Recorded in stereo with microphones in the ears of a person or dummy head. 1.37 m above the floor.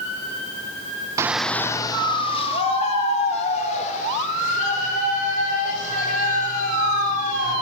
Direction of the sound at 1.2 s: 25° right (ahead or behind).